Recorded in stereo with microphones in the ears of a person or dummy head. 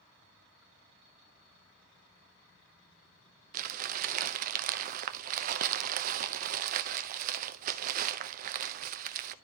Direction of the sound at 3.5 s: 50° right (ahead or behind).